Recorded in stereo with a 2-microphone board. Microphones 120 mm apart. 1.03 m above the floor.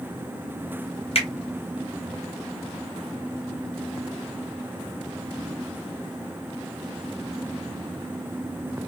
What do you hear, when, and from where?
1.1 s a finger snap: 55° left (ahead or behind), 1.1 m